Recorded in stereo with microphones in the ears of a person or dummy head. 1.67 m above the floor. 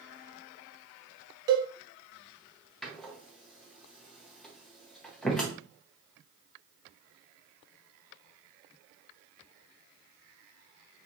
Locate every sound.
1.5 s a cowbell: 20° right (ahead or behind), 0.5 m
2.8 s a door slam: 5° left (ahead or behind), 0.7 m